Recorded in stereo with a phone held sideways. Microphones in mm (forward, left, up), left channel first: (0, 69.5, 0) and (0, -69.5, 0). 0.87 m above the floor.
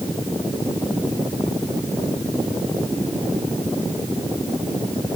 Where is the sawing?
No sawing in this recording.